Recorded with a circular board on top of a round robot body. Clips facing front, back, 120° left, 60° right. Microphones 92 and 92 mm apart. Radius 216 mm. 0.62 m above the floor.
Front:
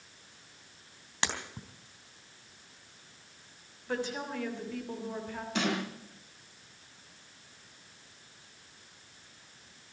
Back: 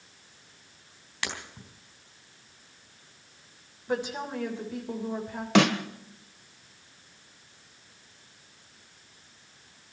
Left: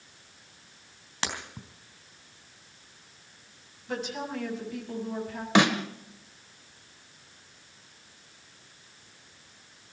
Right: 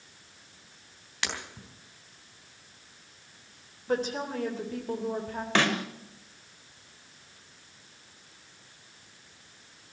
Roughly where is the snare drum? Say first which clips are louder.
Back 10 dB, left 4 dB; behind.